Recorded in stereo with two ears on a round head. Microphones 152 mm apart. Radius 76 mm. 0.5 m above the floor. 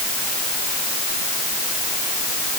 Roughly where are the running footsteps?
No running footsteps in this recording.